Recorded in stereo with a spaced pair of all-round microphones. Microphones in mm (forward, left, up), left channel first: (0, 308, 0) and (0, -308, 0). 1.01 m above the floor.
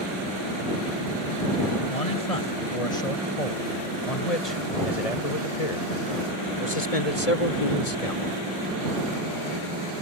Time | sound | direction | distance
1.9 | a man speaking | 70° left (ahead or behind) | ?